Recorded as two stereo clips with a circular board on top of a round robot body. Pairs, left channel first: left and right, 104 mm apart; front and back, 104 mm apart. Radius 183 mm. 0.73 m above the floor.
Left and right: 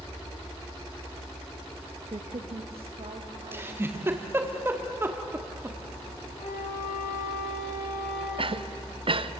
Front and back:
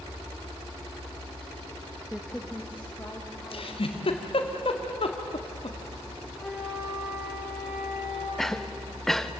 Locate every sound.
2.1 s a woman speaking: 85° right, 1.3 m; by 4.3 s 70° right, 3.5 m
3.5 s a giggle: 25° right, 2 m
6.4 s a flute: 85° left, 7.5 m
8.4 s a cough: 85° right, 1.3 m